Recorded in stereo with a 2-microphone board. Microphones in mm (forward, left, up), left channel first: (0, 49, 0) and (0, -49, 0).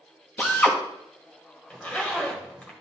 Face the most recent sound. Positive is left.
turn(degrees=15)  # may be behind; listen again after turning